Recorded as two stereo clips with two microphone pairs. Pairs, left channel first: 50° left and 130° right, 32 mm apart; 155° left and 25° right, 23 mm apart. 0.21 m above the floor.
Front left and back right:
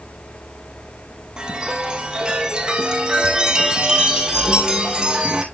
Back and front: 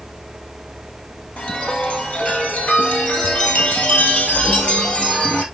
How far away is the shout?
No shout in this recording.